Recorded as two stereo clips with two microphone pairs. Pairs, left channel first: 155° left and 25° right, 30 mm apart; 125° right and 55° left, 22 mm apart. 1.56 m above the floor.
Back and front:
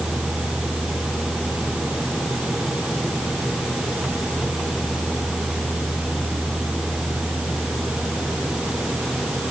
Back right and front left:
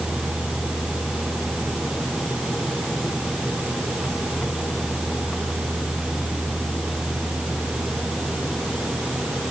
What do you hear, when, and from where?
Only background noise.